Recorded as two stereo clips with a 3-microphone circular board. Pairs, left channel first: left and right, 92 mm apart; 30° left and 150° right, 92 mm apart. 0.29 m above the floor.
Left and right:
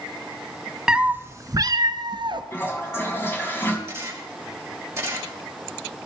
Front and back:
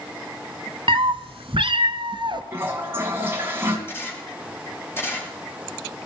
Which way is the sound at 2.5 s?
150° left.